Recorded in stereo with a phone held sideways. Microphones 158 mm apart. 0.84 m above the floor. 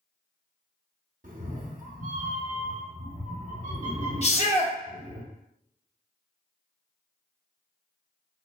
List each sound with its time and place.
1.2 s a cat meowing: 55° right (ahead or behind), 0.6 m
4.2 s a shout: 45° left (ahead or behind), 0.9 m